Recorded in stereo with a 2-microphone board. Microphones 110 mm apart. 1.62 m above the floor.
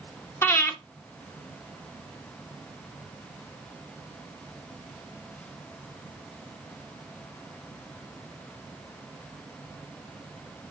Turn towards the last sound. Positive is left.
turn(degrees=20)  # may be behind; listen again after turning